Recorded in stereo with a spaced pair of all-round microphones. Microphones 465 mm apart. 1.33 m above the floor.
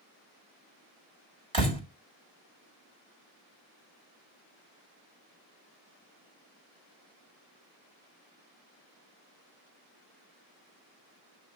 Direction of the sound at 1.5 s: 75° right (ahead or behind).